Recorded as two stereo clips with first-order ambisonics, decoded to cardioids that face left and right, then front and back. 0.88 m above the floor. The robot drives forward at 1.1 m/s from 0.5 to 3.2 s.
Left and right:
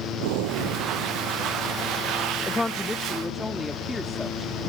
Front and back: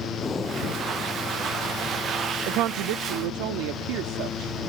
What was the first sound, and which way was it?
Breathing, 75° right.